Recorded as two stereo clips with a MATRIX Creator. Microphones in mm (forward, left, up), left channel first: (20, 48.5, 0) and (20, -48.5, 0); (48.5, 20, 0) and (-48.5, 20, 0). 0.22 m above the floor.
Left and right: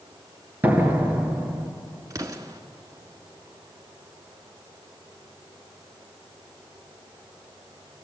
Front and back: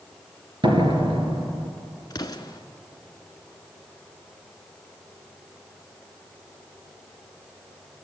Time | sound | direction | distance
0.6 | a door slam | 160° right | 2 m
2.1 | an explosion | 40° right | 1.3 m